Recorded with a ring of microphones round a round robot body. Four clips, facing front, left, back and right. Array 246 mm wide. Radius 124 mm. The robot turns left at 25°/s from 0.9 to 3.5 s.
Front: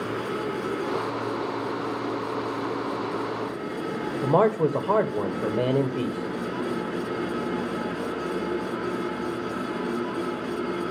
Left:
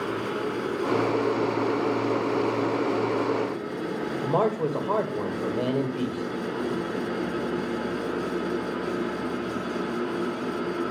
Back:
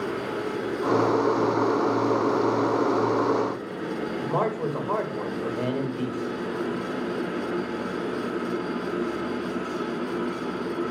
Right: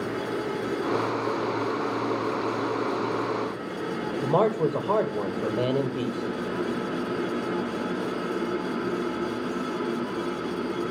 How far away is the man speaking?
About 1.6 m.